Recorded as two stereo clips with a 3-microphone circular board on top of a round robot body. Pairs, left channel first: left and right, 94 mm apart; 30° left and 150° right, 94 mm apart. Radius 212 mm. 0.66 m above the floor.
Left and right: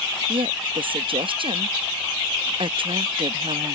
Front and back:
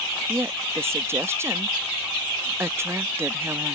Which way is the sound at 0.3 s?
90° right.